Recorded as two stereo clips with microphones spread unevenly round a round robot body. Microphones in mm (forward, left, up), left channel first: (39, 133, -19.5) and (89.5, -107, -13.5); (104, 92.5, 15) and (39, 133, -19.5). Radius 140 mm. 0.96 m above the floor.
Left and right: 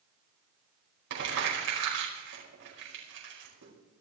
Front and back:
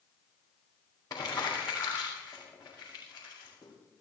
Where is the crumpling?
110° right, 5 m.